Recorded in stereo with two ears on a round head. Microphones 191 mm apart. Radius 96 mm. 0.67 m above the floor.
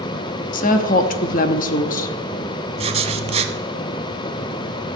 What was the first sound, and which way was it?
A woman speaking, 40° left (ahead or behind).